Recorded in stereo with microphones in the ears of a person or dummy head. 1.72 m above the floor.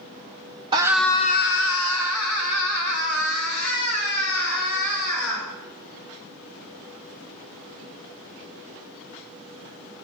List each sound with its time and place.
0.7 s a scream: 25° right (ahead or behind), 0.7 m; by 5.5 s 75° left (ahead or behind), 5 m